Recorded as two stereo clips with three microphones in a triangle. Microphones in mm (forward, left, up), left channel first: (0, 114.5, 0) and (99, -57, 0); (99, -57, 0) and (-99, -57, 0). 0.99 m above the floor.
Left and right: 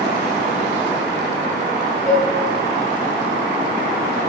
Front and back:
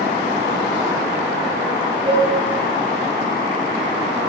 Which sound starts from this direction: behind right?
Dishes clattering, at 2.0 s.